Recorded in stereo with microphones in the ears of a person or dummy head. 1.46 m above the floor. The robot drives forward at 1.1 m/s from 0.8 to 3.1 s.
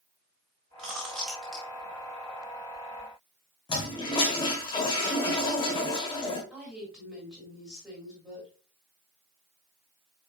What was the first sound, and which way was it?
Chewing, centre (ahead or behind).